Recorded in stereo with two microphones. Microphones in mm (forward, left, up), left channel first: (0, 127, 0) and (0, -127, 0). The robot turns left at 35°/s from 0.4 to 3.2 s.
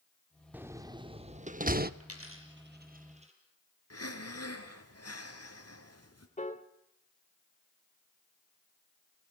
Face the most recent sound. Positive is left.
turn(degrees=30)  # may be behind; listen again after turning